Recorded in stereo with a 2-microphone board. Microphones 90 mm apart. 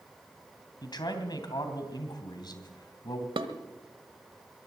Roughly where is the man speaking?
Left.